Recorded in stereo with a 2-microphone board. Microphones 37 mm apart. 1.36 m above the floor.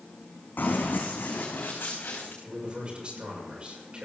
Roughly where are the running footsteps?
Left.